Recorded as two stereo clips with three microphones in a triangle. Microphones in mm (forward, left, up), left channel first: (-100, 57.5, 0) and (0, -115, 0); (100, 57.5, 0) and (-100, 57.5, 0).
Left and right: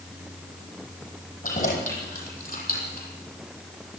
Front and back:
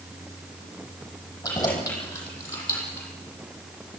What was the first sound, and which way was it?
Keys jangling, 75° left.